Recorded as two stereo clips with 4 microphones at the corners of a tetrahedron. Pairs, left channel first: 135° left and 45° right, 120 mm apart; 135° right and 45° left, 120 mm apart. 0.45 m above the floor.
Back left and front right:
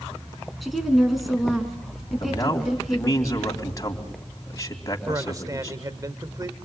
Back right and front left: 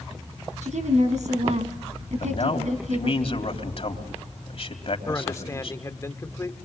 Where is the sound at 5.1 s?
85° right, 1.5 m.